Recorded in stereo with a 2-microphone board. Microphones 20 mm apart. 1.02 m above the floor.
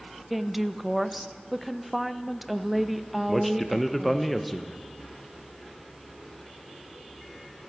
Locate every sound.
0.3 s a woman speaking: centre (ahead or behind), 0.5 m
3.3 s a man speaking: 5° left (ahead or behind), 0.7 m